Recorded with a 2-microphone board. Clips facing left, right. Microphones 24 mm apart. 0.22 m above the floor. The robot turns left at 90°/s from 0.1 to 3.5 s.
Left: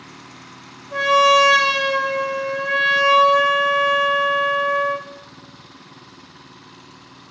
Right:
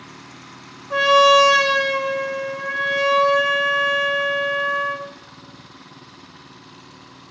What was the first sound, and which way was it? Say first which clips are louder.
A trumpet: right 1 dB; 130° right.